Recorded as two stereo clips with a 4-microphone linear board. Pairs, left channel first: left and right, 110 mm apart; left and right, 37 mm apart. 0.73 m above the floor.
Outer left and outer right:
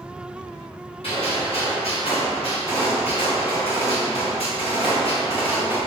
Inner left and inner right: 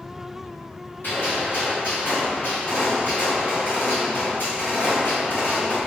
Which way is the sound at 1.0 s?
65° left (ahead or behind).